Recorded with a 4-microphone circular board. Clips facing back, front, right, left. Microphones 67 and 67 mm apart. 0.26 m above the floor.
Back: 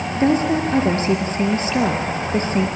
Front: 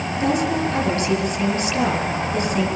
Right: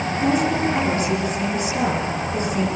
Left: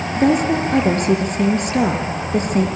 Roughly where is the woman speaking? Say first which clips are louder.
Back 4 dB, left 5 dB; behind left.